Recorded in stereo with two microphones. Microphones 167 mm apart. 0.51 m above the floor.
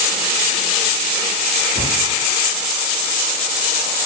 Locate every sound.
1.8 s a cupboard door: 65° right (ahead or behind), 3.5 m